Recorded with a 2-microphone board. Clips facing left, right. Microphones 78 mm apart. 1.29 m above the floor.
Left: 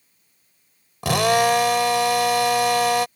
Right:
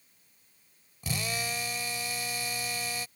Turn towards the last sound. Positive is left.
turn(degrees=80)